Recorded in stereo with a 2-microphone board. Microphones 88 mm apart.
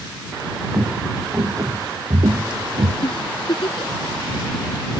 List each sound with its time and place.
0.7 s footsteps: 20° right (ahead or behind); by 2.9 s 75° right (ahead or behind)
3.0 s a giggle: 80° left